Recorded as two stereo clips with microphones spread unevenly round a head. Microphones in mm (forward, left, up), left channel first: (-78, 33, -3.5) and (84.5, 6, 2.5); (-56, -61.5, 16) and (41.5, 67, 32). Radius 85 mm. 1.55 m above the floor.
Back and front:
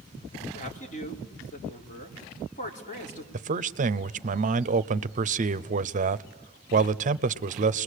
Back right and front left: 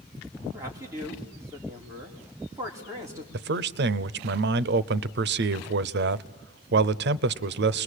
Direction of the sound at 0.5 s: 125° left.